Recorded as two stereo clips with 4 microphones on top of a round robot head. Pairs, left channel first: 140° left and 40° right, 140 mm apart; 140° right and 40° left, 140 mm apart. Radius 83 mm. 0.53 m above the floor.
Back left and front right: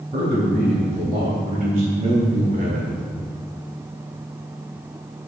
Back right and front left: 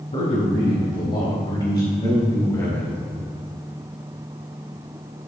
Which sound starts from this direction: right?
A man speaking, at 0.1 s.